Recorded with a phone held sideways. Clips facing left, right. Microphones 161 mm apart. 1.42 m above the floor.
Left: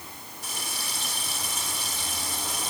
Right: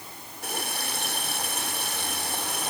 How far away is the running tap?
About 3 m.